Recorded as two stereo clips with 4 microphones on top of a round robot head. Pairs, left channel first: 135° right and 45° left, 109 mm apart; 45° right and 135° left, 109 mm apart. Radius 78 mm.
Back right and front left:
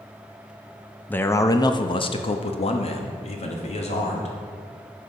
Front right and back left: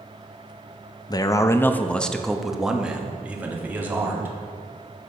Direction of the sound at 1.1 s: 70° right.